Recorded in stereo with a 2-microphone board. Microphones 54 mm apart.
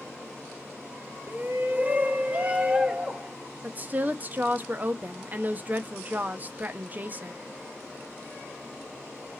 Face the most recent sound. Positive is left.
turn(degrees=-35)  # may be behind; listen again after turning